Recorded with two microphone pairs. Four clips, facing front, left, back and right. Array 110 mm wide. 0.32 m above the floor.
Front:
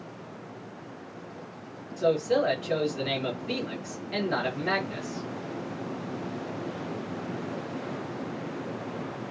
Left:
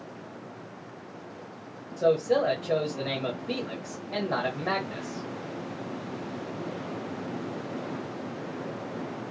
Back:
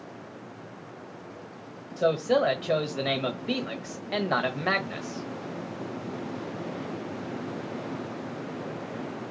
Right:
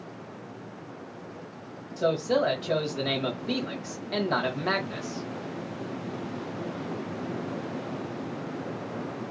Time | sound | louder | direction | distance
2.0 | a man speaking | left 2 dB, back 1 dB | 170° right | 1.1 m